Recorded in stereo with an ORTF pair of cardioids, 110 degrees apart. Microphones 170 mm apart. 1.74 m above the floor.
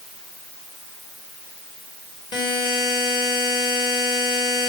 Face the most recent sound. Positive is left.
turn(degrees=25)